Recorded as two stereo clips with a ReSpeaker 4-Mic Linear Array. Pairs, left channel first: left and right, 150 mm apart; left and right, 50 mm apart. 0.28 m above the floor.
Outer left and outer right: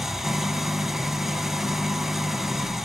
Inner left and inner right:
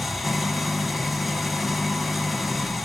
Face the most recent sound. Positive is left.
turn(degrees=0)  # may be behind; listen again after turning